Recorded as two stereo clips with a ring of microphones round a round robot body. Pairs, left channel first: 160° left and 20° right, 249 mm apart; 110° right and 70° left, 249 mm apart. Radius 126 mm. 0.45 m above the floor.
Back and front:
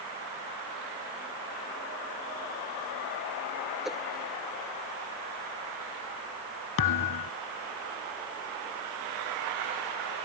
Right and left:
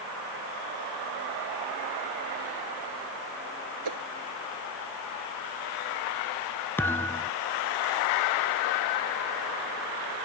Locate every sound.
3.9 s a whoosh: 65° left
6.8 s a thud: 165° left